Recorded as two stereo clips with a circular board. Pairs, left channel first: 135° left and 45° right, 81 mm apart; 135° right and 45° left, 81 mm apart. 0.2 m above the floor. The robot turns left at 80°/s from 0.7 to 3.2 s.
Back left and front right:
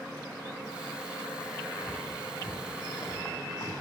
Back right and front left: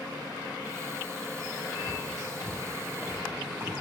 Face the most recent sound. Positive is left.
turn(degrees=110)